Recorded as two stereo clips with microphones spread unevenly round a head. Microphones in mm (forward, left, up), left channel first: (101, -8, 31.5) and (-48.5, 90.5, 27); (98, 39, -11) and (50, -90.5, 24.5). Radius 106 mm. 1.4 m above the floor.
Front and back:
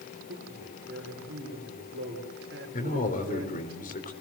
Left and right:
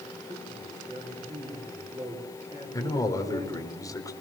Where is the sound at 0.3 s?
175° right, 5.5 m.